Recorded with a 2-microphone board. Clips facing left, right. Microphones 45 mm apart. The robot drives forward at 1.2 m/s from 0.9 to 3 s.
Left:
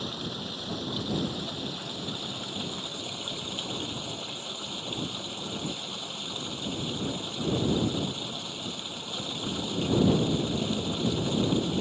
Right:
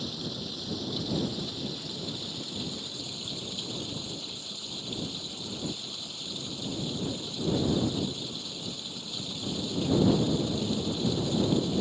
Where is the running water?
35° left (ahead or behind); by 11.8 s 40° left (ahead or behind).